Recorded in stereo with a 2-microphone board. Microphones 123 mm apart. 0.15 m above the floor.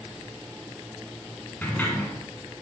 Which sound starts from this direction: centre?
A sliding door, at 1.6 s.